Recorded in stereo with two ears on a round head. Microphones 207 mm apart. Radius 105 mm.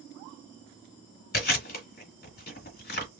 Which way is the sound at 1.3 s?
40° left (ahead or behind).